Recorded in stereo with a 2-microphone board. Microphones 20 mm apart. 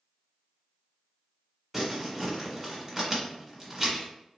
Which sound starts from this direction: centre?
Crumpling, at 1.7 s.